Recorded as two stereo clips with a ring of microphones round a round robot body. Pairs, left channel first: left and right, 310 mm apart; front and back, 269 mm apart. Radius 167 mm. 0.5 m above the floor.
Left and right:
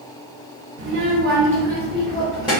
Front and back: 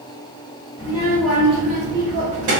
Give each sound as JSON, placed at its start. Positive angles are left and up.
{"t": 0.8, "sound": "a child speaking", "azimuth_deg": -60, "distance_m": 1.0}